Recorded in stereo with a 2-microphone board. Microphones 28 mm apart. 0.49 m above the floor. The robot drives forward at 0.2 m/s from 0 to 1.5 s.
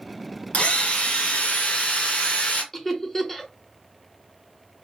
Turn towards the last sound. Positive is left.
turn(degrees=15)  # may be behind; listen again after turning